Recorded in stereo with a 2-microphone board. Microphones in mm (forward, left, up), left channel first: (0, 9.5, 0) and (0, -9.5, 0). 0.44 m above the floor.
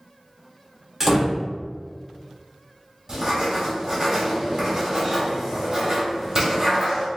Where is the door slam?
15° right (ahead or behind), 0.9 m.